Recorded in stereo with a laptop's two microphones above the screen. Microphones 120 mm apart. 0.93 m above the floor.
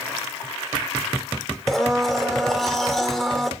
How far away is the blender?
About 1.8 m.